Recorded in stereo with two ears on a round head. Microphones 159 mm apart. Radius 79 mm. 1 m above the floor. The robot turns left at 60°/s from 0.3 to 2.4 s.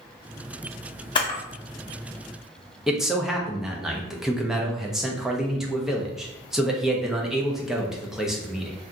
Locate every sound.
1.1 s a camera shutter: 25° left (ahead or behind), 0.7 m; by 1.4 s 35° left (ahead or behind), 0.7 m
2.9 s a man speaking: 5° right (ahead or behind), 0.6 m